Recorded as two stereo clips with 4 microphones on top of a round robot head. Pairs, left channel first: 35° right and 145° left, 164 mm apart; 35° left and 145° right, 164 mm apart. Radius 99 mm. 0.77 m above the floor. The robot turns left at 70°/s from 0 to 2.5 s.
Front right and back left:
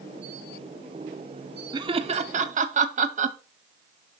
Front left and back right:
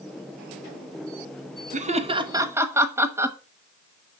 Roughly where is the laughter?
Behind.